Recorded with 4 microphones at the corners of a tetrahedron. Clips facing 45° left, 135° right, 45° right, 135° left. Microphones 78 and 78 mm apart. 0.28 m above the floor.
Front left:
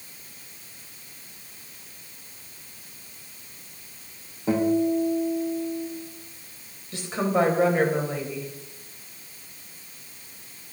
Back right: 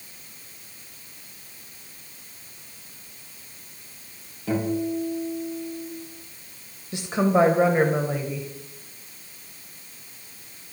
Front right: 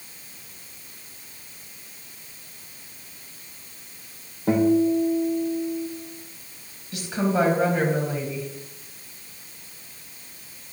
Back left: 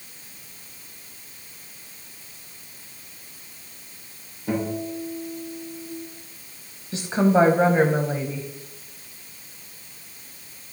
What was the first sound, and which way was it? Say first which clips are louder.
A guitar: front left 4 dB, front right 9 dB; 15° right.